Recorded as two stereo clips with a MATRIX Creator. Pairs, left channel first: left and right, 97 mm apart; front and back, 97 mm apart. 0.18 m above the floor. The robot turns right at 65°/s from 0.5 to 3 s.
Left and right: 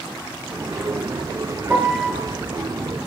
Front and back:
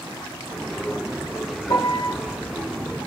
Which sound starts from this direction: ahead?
A piano, at 1.7 s.